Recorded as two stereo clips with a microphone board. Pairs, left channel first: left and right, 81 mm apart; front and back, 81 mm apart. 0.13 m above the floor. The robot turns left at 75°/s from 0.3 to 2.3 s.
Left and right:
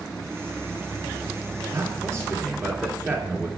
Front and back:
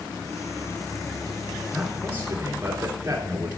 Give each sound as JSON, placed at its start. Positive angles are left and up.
{"t": 1.7, "sound": "a man speaking", "azimuth_deg": -95, "distance_m": 1.9}